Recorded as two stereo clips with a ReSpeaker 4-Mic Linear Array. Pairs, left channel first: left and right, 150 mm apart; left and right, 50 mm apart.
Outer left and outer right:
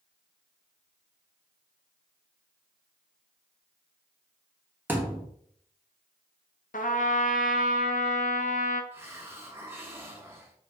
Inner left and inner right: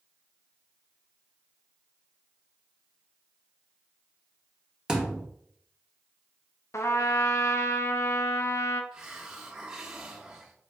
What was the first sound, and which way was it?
A thud, 15° right (ahead or behind).